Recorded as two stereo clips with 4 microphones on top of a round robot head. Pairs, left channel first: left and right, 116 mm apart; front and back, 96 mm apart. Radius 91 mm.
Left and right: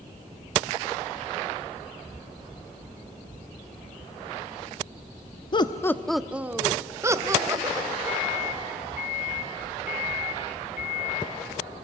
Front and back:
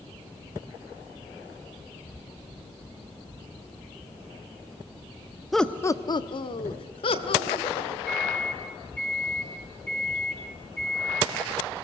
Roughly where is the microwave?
Left.